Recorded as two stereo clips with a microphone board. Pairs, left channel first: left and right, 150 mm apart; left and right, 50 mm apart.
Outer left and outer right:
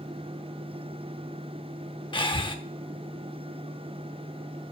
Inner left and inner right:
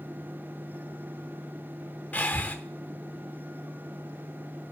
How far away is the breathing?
About 0.7 m.